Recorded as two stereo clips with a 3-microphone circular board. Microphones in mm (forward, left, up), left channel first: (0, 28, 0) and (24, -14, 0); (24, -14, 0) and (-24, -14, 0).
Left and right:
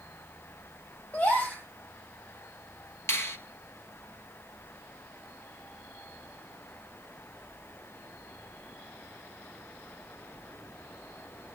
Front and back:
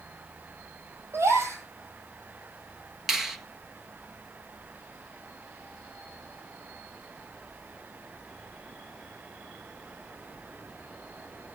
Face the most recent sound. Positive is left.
turn(degrees=95)